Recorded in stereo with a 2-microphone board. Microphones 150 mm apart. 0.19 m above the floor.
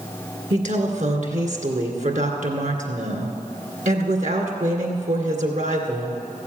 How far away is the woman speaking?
About 2 m.